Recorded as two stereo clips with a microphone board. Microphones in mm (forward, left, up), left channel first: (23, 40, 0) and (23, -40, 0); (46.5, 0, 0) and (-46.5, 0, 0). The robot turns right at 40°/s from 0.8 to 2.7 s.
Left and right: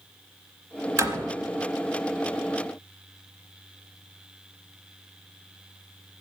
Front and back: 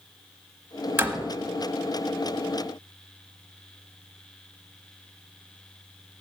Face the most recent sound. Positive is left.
turn(degrees=-50)